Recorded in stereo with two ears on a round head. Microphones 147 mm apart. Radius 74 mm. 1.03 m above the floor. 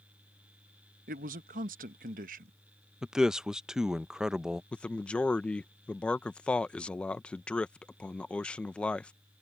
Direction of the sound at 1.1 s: 50° right (ahead or behind).